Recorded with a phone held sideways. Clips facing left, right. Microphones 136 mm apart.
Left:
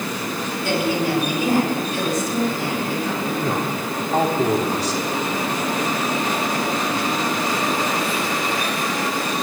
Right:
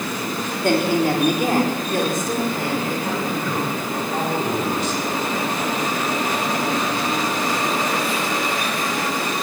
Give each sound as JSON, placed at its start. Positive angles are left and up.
{"t": 0.6, "sound": "a woman speaking", "side_deg": -55, "distance_m": 4.5}
{"t": 3.4, "sound": "a man speaking", "side_deg": 40, "distance_m": 5.5}